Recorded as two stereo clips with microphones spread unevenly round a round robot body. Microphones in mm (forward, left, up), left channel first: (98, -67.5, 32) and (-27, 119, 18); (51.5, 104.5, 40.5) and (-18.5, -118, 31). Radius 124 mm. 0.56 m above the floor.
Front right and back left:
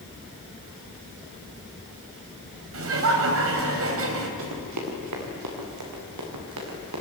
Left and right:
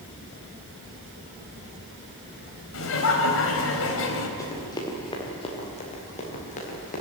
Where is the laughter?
105° left, 3.5 m.